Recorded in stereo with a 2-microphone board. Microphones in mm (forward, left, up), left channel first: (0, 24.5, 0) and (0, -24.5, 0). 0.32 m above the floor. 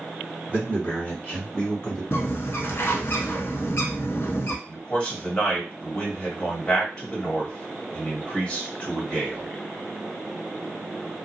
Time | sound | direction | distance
0.5 | a man speaking | 30° left (ahead or behind) | 1.7 m
2.1 | a bird | 55° left (ahead or behind) | 0.6 m
4.7 | a man speaking | 20° left (ahead or behind) | 1.5 m